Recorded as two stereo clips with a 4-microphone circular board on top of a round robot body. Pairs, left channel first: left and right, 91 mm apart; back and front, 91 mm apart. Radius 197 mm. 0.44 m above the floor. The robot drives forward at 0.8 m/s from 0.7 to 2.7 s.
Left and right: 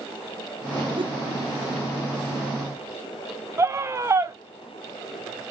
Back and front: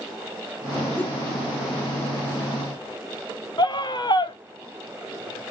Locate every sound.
1.0 s a whoosh: 110° right, 1.6 m; by 1.2 s 115° right, 1.7 m
3.6 s a scream: 145° right, 2 m